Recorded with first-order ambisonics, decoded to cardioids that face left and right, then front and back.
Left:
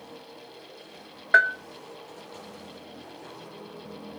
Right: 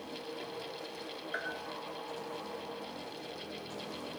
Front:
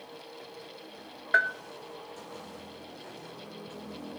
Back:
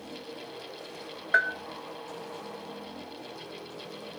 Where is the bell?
90° left, 0.6 m.